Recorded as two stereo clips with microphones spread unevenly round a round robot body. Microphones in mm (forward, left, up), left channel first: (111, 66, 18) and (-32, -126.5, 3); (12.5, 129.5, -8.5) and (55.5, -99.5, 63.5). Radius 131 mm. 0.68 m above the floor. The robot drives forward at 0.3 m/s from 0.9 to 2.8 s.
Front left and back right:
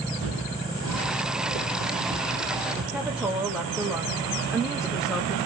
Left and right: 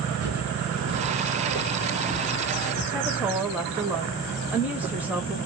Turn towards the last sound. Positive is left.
turn(degrees=160)